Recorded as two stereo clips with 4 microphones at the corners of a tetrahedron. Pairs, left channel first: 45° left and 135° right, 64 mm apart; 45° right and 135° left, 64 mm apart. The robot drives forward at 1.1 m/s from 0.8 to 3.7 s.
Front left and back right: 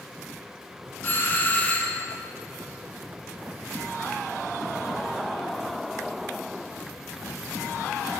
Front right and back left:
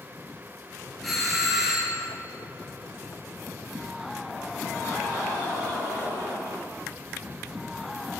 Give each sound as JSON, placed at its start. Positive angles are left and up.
{"t": 1.0, "sound": "a doorbell", "azimuth_deg": 40, "distance_m": 2.5}